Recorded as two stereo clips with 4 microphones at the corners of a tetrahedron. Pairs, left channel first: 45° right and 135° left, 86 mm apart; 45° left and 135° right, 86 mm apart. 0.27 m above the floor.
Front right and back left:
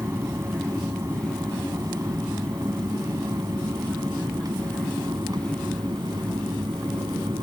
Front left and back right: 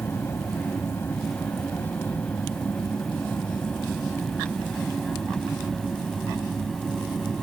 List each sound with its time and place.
0.0 s an aircraft: 95° left; by 7.5 s 130° left